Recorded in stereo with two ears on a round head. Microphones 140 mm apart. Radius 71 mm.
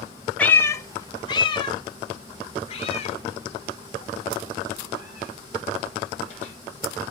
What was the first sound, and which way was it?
A cat meowing, 10° left (ahead or behind).